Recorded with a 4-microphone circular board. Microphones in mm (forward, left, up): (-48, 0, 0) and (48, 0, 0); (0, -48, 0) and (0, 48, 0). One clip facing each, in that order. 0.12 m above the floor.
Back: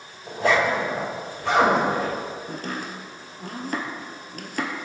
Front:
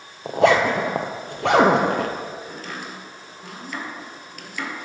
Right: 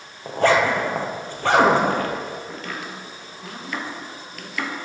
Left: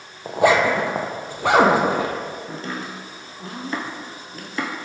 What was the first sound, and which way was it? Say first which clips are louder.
A zipper: front 4 dB, left 1 dB; 10° left.